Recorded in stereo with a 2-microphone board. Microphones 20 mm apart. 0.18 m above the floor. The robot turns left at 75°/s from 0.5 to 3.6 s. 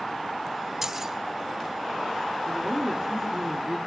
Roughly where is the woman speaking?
Ahead right.